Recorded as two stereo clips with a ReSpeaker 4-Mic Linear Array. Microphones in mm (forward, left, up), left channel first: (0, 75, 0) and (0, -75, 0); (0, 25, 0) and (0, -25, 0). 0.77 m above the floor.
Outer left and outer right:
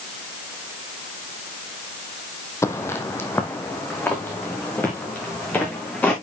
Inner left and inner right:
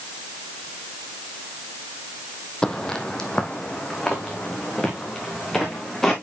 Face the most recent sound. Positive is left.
turn(degrees=10)  # may be behind; listen again after turning